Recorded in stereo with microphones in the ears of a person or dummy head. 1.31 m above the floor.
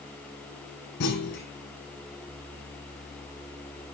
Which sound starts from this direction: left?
A clunk, at 1.0 s.